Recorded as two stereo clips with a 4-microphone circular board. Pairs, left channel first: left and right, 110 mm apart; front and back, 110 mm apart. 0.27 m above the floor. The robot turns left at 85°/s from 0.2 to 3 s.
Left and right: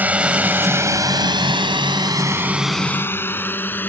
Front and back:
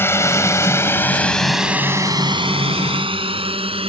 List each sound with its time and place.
0.0 s a drone: 35° right; by 3.9 s 160° left